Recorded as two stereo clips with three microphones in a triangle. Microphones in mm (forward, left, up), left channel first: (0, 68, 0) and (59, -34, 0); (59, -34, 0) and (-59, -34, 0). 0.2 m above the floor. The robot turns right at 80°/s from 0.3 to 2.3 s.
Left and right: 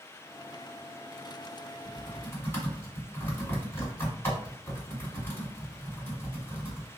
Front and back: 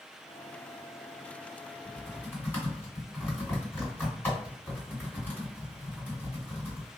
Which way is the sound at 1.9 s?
25° left.